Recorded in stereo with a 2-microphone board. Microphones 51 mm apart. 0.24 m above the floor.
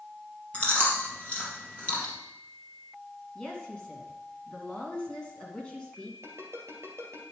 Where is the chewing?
25° left (ahead or behind), 2.5 m.